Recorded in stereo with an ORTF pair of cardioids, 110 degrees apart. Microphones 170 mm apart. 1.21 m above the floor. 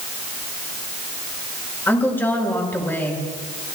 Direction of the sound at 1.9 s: 10° left.